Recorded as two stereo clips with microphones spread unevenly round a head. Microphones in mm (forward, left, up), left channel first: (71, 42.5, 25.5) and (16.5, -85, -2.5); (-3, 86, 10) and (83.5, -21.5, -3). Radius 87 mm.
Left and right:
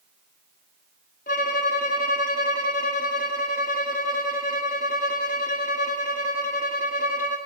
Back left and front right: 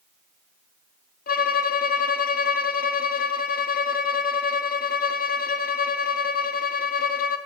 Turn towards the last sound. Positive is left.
turn(degrees=115)